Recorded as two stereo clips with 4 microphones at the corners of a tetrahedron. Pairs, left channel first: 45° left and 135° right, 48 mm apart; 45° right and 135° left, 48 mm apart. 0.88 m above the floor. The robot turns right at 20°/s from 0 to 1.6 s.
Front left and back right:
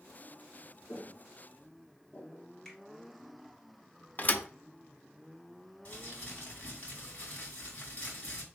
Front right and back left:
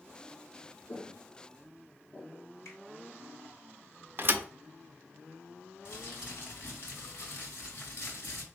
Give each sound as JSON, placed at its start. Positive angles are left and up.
{"t": 0.9, "sound": "footsteps", "azimuth_deg": -20, "distance_m": 1.5}
{"t": 2.6, "sound": "a finger snap", "azimuth_deg": -35, "distance_m": 2.5}
{"t": 4.2, "sound": "a thud", "azimuth_deg": 95, "distance_m": 0.5}
{"t": 5.8, "sound": "crumpling", "azimuth_deg": -10, "distance_m": 2.5}